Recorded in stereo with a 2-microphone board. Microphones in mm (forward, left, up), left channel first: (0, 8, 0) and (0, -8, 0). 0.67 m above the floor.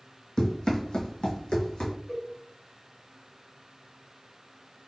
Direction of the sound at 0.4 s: 45° left (ahead or behind).